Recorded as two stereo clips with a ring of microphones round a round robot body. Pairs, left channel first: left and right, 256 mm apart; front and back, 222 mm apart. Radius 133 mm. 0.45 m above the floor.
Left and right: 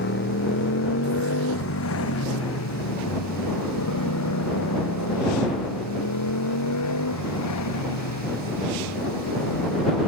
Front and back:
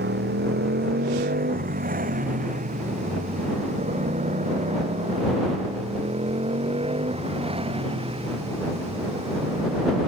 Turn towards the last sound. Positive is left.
turn(degrees=110)